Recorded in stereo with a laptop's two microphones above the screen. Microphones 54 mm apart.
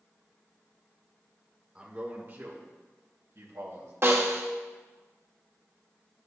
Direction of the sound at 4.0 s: 50° right (ahead or behind).